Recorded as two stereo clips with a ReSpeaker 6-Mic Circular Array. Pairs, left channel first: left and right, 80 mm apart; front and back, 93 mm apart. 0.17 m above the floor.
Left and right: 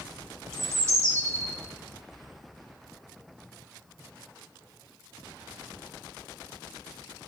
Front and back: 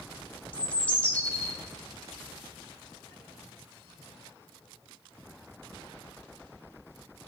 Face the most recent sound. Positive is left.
turn(degrees=-65)